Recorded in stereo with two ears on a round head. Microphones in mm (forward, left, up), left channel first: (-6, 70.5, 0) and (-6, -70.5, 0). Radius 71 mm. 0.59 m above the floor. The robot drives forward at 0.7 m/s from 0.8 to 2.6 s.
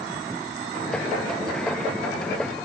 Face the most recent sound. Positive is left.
No sound to turn to.